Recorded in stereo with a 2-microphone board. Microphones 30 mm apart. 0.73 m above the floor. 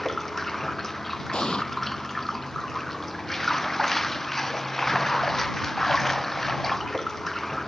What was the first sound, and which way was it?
Running water, 15° left (ahead or behind).